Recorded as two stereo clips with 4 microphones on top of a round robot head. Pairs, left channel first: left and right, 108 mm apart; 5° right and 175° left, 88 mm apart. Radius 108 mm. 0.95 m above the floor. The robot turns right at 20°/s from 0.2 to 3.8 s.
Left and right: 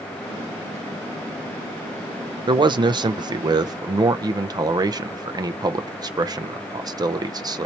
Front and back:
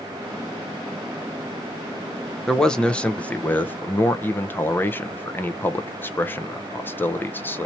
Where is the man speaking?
90° right, 0.6 m; by 7.7 s 60° right, 0.6 m.